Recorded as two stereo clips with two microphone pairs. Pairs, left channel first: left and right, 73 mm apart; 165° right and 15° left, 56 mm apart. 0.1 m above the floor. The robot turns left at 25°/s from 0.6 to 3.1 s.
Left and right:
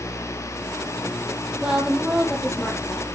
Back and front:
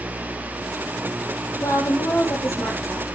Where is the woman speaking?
165° right, 3.5 m; by 3.2 s 160° left, 3.5 m.